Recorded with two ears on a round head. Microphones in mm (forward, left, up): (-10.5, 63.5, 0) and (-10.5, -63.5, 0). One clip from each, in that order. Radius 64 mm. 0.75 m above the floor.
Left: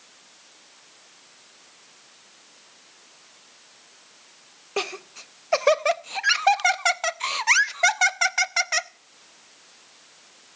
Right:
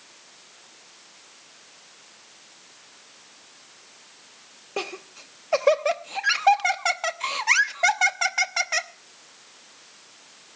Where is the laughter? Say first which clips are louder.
Left 3 dB; 35° left (ahead or behind), 0.6 m.